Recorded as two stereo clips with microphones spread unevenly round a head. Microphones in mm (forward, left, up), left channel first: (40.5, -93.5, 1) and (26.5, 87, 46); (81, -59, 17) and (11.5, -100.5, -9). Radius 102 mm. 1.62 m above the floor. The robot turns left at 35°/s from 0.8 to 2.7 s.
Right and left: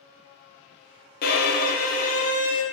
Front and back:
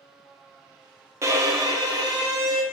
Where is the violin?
90° right, 0.6 m; by 2.6 s 140° right, 0.6 m.